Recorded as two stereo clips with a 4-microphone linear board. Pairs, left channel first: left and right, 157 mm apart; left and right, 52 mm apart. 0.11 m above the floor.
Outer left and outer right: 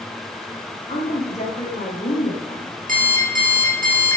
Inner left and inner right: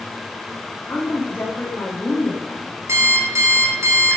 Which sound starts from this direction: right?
An alarm clock, at 2.9 s.